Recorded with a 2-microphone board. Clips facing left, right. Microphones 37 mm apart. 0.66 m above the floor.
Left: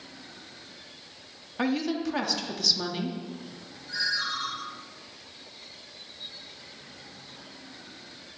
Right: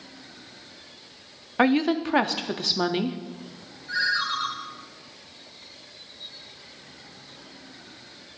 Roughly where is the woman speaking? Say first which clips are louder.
Right 7 dB; right.